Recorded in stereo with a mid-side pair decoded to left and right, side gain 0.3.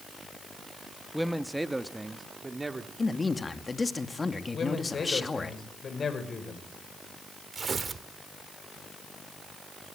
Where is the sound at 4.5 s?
60° left, 4.5 m.